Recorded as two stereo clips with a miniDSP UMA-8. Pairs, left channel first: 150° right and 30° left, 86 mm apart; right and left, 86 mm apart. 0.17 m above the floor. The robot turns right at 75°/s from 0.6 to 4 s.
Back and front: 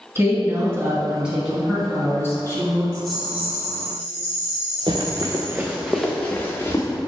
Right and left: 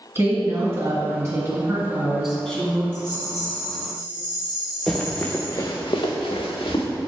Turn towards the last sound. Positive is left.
turn(degrees=-95)